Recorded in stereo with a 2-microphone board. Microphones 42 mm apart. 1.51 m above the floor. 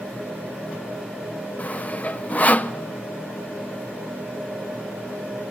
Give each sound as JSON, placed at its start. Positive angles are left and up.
{"t": 1.6, "sound": "sawing", "side_deg": 35, "distance_m": 0.5}